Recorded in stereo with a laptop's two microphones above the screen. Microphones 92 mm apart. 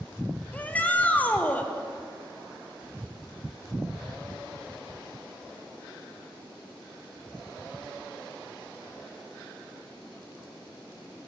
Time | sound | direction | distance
0.5 | a shout | 15° left (ahead or behind) | 0.5 m